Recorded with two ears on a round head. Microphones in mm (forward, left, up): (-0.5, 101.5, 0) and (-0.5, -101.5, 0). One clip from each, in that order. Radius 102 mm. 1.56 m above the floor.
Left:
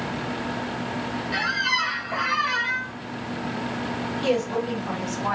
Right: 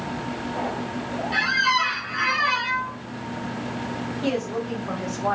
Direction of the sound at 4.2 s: 65° left (ahead or behind).